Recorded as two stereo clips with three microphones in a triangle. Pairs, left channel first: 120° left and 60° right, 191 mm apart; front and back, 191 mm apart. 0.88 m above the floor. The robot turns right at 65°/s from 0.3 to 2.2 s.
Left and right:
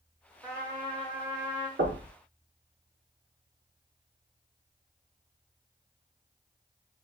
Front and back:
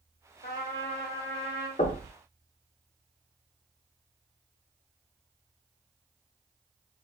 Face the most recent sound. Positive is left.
turn(degrees=-30)